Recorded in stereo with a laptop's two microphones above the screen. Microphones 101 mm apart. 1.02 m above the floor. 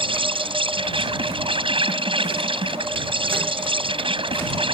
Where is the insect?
60° right (ahead or behind).